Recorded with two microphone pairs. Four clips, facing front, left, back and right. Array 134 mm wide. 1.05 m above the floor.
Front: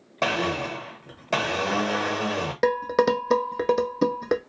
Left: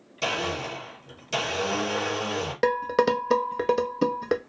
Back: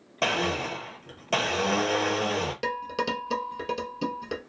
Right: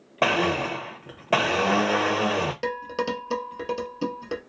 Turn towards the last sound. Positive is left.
turn(degrees=35)